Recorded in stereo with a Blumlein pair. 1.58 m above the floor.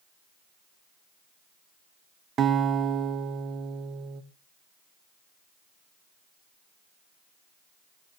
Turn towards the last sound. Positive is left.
turn(degrees=-25)